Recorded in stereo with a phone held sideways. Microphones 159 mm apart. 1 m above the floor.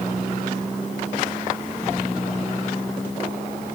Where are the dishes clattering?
I don't hear dishes clattering.